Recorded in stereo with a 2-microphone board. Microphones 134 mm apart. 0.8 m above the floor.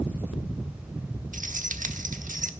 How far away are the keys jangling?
About 1.0 m.